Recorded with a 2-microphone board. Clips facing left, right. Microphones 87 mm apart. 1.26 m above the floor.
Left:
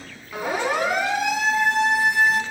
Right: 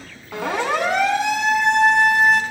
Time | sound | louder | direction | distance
0.3 | a siren | right 2 dB | 80° right | 9 m